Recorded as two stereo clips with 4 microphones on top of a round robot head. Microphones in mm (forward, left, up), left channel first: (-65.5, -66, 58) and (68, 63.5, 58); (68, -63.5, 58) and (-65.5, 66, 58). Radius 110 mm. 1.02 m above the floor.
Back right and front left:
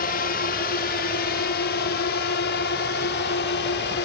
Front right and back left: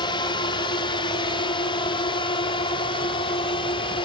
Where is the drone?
105° right; by 4.1 s 110° right.